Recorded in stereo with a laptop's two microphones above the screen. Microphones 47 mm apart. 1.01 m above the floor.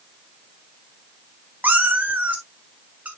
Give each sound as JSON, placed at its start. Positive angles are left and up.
{"t": 1.6, "sound": "a cat meowing", "side_deg": -35, "distance_m": 1.1}